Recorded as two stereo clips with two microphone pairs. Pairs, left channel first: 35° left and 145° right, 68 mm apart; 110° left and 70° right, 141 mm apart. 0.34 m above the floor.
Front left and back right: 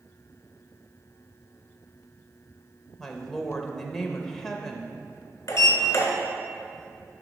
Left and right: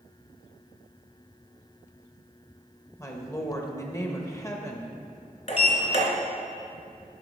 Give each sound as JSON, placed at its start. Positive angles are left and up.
{"t": 3.0, "sound": "a woman speaking", "azimuth_deg": 105, "distance_m": 0.9}
{"t": 5.5, "sound": "a sliding door", "azimuth_deg": 80, "distance_m": 1.8}